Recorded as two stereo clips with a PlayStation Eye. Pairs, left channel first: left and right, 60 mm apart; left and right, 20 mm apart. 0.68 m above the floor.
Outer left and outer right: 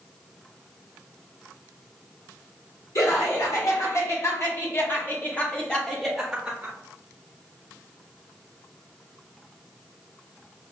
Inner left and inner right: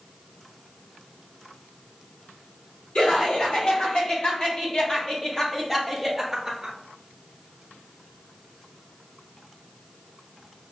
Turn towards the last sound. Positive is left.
turn(degrees=-20)  # may be behind; listen again after turning